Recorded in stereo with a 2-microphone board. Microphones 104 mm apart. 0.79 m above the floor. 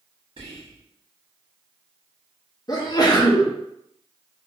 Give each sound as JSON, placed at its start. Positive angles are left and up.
{"t": 0.4, "sound": "whispering", "side_deg": -65, "distance_m": 1.1}
{"t": 2.7, "sound": "a sneeze", "side_deg": 35, "distance_m": 0.7}